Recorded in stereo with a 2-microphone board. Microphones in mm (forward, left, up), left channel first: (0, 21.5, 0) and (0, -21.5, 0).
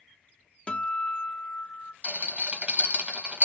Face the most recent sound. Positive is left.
turn(degrees=-35)  # may be behind; listen again after turning